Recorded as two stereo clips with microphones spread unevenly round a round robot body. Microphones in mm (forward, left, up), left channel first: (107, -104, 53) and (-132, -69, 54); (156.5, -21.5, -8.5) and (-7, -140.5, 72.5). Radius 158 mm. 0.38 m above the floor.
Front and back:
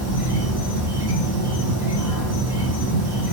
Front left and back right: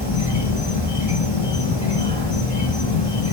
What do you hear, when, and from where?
0.0 s an insect: 95° left, 1.3 m